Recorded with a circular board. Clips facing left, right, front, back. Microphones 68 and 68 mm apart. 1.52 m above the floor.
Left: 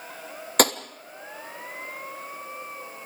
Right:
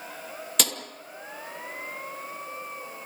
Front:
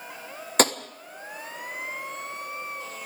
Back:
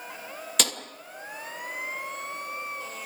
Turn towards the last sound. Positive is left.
turn(degrees=50)